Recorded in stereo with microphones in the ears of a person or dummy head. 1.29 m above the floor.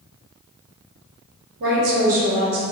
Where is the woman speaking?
60° right (ahead or behind), 1.0 m; by 2.6 s 30° right (ahead or behind), 1.1 m.